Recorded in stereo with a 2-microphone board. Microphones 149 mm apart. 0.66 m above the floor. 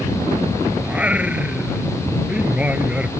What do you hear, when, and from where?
0.8 s singing: 10° right (ahead or behind)